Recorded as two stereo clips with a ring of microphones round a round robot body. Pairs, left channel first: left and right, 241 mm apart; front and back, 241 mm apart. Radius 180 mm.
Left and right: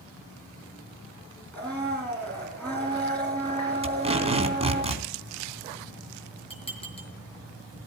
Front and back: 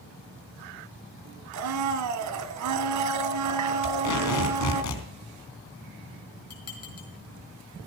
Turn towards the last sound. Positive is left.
turn(degrees=25)